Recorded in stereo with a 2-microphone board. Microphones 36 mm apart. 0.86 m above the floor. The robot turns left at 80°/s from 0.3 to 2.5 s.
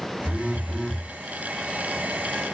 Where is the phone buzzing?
45° right, 1.6 m; by 1.1 s 105° right, 1.6 m.